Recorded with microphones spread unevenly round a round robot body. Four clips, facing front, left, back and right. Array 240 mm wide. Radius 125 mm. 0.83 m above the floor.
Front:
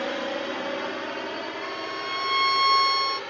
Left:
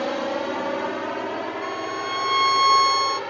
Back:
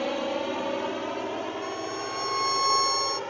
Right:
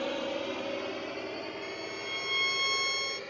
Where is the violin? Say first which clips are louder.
Left 12 dB, even; 80° left.